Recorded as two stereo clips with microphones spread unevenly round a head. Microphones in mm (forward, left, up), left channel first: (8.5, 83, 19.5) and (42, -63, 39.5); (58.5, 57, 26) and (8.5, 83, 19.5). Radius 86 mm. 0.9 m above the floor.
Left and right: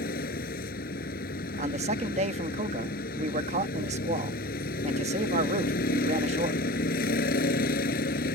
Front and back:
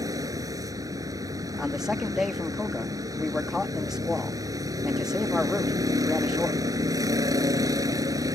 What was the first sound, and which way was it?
A vehicle, 140° left.